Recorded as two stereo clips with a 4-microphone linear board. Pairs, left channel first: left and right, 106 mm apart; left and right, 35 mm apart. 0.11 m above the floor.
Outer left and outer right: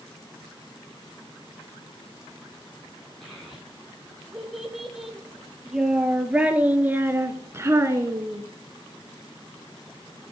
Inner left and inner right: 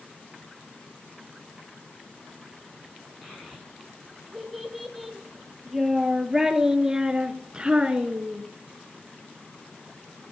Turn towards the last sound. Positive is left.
turn(degrees=-25)  # may be behind; listen again after turning